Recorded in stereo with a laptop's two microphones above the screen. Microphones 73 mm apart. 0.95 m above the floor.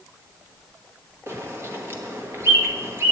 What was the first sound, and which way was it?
A bird, 35° right (ahead or behind).